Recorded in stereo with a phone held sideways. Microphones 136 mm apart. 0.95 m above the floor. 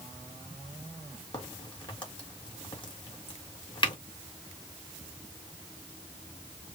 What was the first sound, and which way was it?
A crack, 35° left (ahead or behind).